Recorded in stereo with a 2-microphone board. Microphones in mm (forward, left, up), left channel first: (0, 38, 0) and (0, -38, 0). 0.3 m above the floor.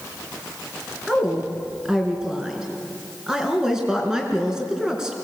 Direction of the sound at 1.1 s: 10° right (ahead or behind).